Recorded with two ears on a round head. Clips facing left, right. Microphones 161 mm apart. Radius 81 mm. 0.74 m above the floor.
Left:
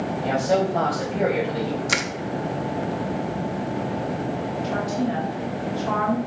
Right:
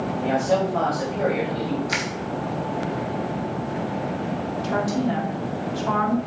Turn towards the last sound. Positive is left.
turn(degrees=-55)  # may be behind; listen again after turning